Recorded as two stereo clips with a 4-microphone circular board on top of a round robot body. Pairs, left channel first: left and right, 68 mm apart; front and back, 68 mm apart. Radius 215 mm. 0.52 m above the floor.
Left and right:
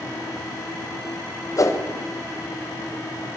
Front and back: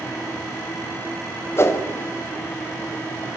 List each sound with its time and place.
1.6 s a whoosh: 50° left, 2.5 m